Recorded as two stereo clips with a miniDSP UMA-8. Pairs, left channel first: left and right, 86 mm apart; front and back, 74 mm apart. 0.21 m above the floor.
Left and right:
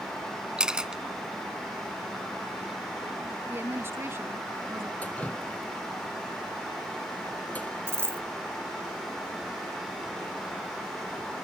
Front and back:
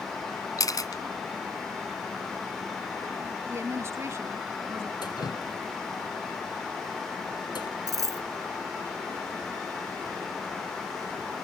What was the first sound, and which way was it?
A camera shutter, 10° right.